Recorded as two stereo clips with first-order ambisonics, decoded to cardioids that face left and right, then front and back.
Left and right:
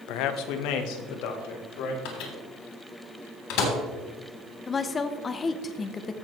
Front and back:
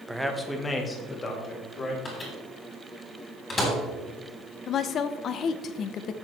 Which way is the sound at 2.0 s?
75° left.